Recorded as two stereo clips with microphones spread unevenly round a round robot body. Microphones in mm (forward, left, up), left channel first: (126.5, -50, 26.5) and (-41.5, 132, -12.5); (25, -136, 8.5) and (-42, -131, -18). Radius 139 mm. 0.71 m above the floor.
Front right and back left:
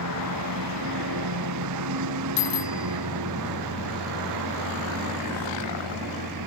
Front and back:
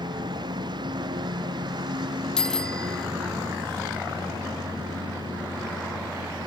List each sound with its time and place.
0.0 s a lawn mower: 165° left; by 6.5 s 155° left
2.4 s a bicycle bell: 85° right